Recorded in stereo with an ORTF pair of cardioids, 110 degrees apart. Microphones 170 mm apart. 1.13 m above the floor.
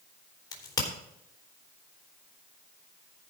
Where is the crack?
25° left, 3.5 m.